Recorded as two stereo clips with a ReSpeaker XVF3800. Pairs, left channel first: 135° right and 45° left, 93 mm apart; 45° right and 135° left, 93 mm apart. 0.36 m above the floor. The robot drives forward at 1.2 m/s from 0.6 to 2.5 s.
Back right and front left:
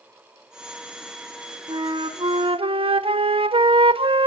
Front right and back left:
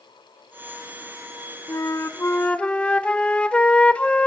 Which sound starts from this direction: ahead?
A flute, at 1.7 s.